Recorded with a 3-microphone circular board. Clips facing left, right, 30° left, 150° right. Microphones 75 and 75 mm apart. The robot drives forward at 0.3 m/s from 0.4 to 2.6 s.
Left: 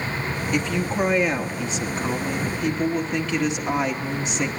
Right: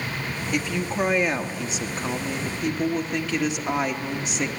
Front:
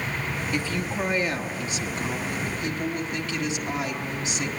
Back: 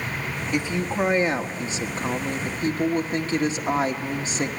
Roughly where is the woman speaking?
Behind.